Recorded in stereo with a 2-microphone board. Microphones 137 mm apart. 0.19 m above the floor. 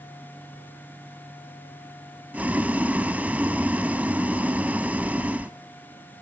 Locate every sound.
2.3 s boiling: 10° right (ahead or behind), 0.7 m